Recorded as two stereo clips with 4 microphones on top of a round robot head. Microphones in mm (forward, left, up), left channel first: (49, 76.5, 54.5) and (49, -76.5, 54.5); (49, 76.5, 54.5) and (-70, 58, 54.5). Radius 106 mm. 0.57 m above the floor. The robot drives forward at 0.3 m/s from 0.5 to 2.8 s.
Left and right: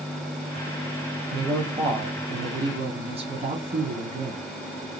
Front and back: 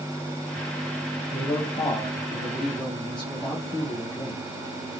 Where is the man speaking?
40° right, 1.0 m; by 4.5 s 70° right, 0.8 m.